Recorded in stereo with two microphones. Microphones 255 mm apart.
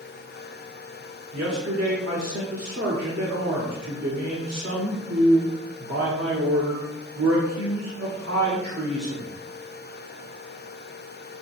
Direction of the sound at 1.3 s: 70° right (ahead or behind).